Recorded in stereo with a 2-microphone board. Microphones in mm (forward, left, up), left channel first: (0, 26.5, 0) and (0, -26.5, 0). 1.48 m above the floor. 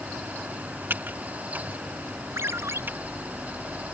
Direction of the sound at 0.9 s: 40° right (ahead or behind).